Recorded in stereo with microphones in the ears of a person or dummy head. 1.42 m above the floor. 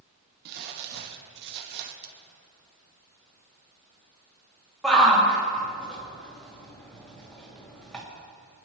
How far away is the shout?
About 2.5 m.